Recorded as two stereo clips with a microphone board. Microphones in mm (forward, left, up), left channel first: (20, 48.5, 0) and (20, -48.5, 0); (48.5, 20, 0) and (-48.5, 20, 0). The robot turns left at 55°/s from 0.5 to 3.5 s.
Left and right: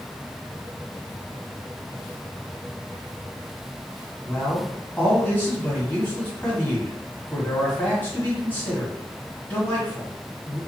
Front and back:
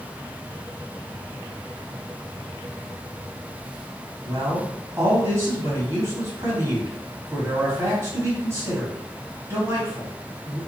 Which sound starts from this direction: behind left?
A man speaking, at 4.2 s.